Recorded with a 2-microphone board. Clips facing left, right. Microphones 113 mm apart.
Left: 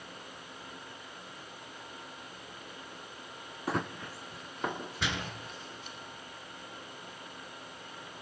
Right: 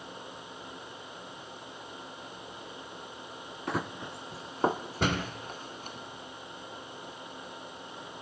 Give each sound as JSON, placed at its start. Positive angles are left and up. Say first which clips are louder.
{"t": 3.7, "sound": "running footsteps", "louder": "even", "side_deg": 5, "distance_m": 0.8}
{"t": 5.0, "sound": "a door slam", "louder": "right 7 dB", "side_deg": -45, "distance_m": 1.8}